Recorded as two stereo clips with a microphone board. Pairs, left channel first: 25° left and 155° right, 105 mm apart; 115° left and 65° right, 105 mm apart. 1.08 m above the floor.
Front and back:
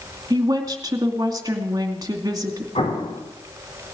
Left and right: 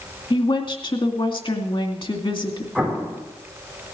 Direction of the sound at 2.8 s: 25° left.